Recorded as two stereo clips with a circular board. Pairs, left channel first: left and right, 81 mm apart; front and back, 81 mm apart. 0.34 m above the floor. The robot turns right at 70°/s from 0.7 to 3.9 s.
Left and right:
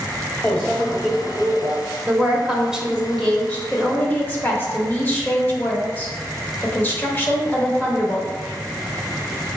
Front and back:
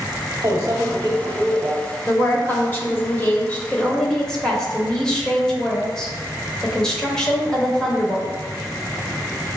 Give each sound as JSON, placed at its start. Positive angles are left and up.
{"t": 0.4, "sound": "a microwave", "azimuth_deg": 160, "distance_m": 1.2}
{"t": 2.1, "sound": "a woman speaking", "azimuth_deg": -60, "distance_m": 0.9}